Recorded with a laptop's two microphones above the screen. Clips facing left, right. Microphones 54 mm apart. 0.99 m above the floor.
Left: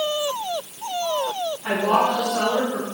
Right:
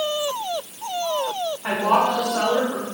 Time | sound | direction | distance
1.6 | a woman speaking | 80° right | 7.5 m